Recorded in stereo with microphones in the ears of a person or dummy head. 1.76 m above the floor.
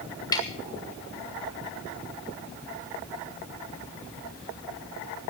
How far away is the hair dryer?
I don't hear a hair dryer.